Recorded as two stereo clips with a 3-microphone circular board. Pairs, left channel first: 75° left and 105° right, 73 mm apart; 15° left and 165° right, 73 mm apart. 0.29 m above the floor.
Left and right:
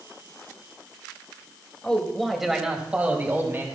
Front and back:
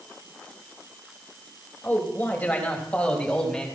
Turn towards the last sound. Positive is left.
turn(degrees=-60)